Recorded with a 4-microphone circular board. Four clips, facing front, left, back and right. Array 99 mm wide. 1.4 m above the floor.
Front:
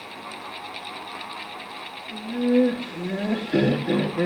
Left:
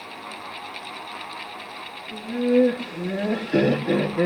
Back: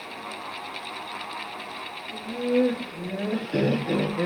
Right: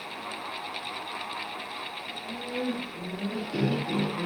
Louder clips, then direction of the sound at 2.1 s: Left 17 dB, front 3 dB; 65° left.